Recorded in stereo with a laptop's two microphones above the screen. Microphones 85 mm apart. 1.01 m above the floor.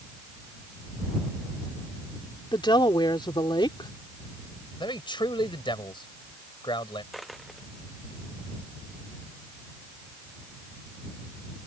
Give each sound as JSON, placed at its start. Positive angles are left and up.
{"t": 2.5, "sound": "a woman speaking", "side_deg": 65}
{"t": 4.8, "sound": "a man speaking", "side_deg": 70}
{"t": 7.1, "sound": "a dropped coin", "side_deg": 0}